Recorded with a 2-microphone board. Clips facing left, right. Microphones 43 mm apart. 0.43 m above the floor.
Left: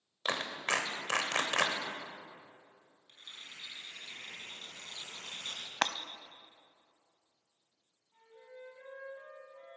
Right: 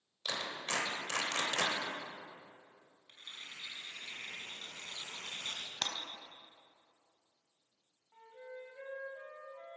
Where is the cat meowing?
I don't hear a cat meowing.